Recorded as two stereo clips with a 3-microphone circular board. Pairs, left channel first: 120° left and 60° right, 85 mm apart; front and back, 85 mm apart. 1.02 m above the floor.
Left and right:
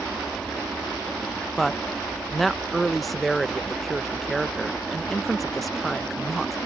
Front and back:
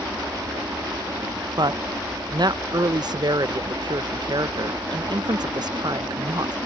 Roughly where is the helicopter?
Behind right.